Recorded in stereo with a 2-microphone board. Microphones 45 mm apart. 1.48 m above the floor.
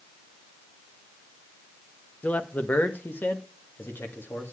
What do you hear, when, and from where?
2.2 s a man speaking: 35° left (ahead or behind), 1.0 m; by 4.5 s 60° left (ahead or behind), 2.5 m